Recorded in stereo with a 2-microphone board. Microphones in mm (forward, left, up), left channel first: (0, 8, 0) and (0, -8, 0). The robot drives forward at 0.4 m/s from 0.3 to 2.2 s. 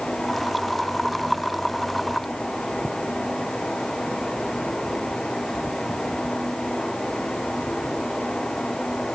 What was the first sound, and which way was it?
Only background noise.